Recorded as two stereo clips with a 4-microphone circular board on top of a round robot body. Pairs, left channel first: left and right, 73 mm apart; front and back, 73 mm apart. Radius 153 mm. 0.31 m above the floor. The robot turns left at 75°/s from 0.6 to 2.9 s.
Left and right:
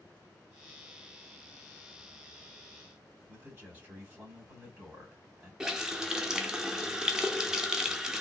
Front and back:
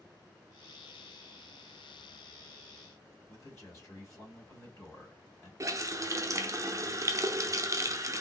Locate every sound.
3.3 s a man speaking: 30° right, 2 m
5.6 s a running tap: 170° right, 0.7 m